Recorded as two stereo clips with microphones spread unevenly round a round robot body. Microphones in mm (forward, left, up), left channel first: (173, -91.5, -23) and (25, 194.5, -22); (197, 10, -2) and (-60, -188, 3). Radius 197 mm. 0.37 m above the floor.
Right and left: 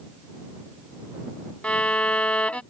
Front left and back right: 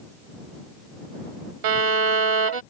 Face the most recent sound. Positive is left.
turn(degrees=-150)